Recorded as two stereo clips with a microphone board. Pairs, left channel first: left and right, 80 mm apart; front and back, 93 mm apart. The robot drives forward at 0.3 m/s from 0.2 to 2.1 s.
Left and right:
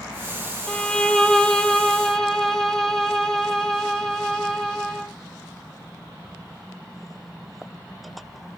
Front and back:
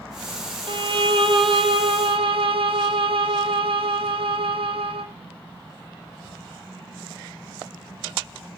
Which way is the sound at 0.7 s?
165° left.